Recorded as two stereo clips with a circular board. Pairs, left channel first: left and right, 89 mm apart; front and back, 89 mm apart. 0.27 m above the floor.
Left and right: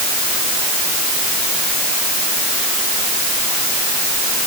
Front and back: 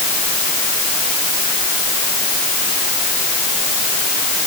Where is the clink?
No clink in this recording.